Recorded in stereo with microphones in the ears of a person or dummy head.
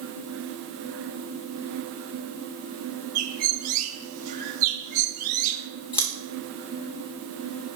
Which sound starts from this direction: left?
Scissors, at 5.9 s.